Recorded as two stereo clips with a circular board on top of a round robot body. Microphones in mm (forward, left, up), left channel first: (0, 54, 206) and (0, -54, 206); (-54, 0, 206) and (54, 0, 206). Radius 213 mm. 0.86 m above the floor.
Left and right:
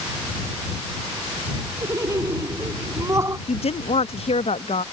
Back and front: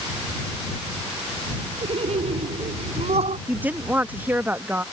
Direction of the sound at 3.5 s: 75° left.